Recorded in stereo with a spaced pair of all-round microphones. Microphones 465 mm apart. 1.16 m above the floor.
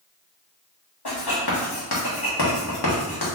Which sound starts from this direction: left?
Writing, at 1.1 s.